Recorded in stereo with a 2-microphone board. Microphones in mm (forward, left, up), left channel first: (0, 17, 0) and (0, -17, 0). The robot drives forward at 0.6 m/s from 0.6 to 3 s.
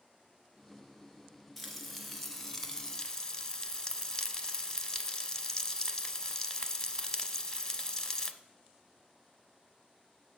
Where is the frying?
10° left (ahead or behind), 1.4 m; by 8.3 s 30° left (ahead or behind), 0.5 m.